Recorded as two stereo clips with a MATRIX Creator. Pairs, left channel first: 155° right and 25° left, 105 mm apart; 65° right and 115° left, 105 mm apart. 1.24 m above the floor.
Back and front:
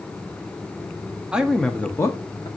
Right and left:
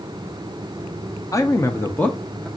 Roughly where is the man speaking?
Ahead right.